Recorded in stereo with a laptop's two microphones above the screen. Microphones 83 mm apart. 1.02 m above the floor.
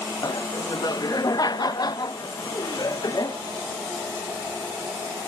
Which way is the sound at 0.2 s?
45° left (ahead or behind).